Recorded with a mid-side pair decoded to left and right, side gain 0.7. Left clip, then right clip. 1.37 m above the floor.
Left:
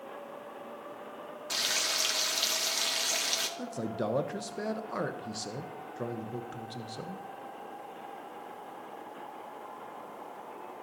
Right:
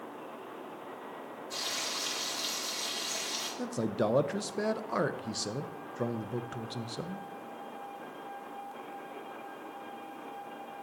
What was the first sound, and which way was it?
Frying, 65° left.